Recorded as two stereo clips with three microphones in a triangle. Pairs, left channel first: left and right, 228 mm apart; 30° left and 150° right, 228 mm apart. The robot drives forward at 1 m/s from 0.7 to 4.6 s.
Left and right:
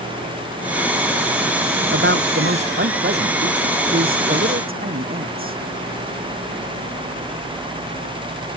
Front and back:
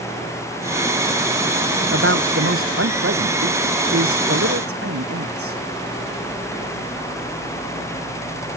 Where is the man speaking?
125° right; by 5.6 s 140° right.